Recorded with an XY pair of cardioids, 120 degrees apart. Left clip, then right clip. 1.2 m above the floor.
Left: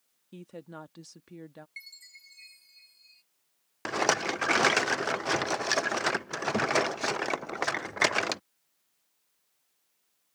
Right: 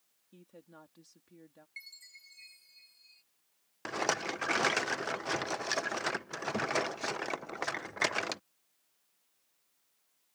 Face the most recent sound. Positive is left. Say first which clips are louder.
# left 6 dB
turn(degrees=30)